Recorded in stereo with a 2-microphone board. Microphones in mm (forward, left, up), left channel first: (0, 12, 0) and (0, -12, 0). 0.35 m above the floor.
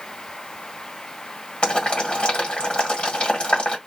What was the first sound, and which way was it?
Boiling, 45° left (ahead or behind).